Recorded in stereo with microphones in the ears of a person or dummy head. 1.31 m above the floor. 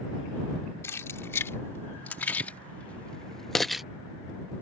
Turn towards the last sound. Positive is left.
turn(degrees=0)  # may be behind; listen again after turning